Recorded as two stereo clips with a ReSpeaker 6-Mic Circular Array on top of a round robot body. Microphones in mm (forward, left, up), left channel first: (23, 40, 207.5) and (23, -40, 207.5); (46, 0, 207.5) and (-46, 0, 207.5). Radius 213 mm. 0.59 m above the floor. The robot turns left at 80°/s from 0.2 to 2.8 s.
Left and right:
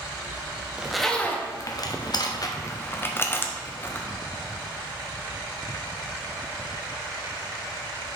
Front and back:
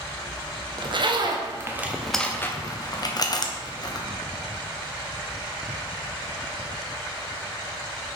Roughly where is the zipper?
Behind.